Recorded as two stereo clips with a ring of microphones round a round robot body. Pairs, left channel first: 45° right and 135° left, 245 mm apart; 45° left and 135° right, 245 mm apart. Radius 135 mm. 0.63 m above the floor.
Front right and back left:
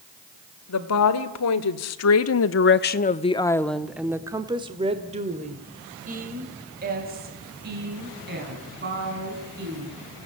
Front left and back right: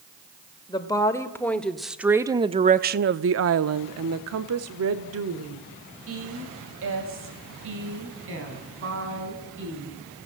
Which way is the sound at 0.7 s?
30° right.